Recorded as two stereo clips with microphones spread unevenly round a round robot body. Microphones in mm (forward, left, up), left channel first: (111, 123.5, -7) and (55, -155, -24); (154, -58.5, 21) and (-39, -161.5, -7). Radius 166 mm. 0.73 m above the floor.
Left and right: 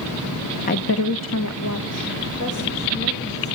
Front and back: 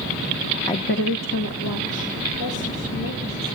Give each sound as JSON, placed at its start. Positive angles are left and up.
{"t": 0.7, "sound": "a woman speaking", "azimuth_deg": 105, "distance_m": 0.5}